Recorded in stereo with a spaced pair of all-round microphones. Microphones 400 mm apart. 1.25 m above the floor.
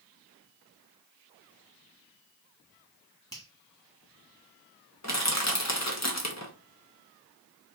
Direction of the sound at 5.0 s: 45° left (ahead or behind).